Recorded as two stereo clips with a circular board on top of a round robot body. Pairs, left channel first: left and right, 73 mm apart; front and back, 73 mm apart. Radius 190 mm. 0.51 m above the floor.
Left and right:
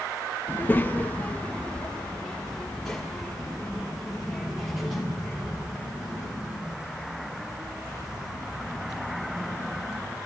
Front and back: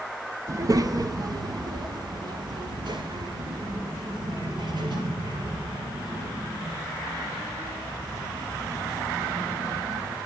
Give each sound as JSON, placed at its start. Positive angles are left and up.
{"t": 0.5, "sound": "a child speaking", "azimuth_deg": 145, "distance_m": 0.8}